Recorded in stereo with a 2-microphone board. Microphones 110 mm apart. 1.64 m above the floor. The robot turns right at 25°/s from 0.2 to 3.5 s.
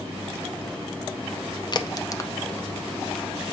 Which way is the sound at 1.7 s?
40° left (ahead or behind).